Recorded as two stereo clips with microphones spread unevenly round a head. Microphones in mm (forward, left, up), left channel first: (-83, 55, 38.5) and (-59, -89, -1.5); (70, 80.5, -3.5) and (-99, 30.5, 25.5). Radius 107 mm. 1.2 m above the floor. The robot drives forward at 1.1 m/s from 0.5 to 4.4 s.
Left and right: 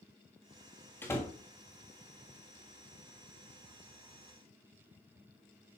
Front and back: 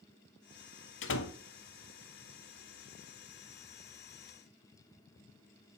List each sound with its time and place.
1.0 s a door slam: 20° left, 1.5 m; by 1.3 s 25° left, 1.1 m